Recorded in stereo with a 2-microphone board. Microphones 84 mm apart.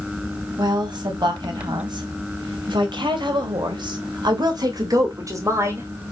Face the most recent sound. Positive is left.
turn(degrees=-30)  # may be behind; listen again after turning